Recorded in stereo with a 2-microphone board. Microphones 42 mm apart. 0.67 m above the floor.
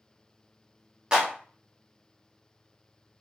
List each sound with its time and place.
1.1 s a clap: 20° right (ahead or behind), 0.9 m